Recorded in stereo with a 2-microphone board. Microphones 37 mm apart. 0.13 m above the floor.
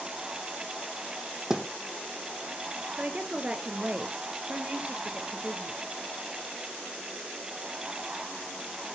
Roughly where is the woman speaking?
Right.